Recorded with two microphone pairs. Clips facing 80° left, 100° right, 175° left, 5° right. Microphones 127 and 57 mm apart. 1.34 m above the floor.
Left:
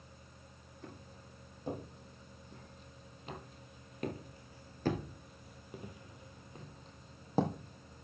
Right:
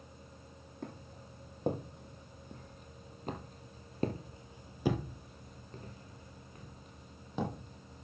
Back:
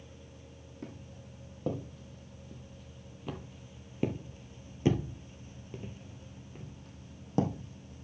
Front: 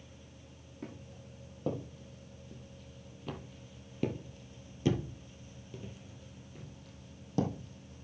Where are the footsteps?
90° right, 3.5 m; by 8.1 s 125° left, 2.5 m.